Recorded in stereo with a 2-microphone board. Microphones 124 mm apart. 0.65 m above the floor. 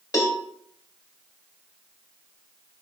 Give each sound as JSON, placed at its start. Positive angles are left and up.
{"t": 0.1, "sound": "a cowbell", "side_deg": 30, "distance_m": 1.0}